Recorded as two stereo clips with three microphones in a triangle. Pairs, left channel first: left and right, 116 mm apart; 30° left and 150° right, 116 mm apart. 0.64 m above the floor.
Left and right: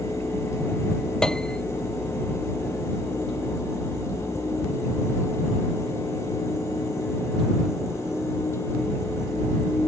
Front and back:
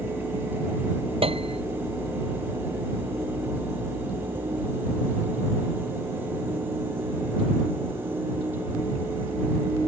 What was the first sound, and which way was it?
A piano, 175° left.